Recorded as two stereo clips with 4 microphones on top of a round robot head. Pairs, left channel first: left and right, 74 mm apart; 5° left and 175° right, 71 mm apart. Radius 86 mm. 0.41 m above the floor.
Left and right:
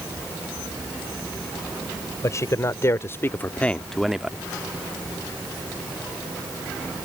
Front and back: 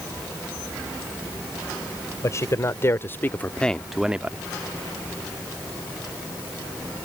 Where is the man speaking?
45° left; by 4.4 s 145° right.